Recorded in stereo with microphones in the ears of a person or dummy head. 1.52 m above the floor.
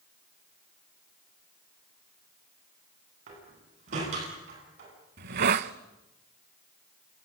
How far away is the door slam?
About 9.5 m.